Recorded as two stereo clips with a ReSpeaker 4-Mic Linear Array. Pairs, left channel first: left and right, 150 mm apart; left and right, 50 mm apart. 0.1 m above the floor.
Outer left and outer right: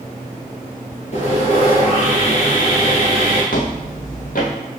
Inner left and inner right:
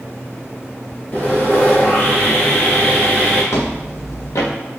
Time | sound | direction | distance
1.1 | sawing | 45° left (ahead or behind) | 2 m
3.5 | footsteps | 70° left (ahead or behind) | 1.6 m